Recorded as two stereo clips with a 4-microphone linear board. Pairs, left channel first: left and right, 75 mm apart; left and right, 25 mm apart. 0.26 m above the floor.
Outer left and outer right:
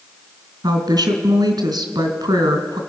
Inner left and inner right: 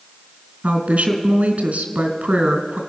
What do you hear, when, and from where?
0.6 s a woman speaking: 65° right (ahead or behind), 2.5 m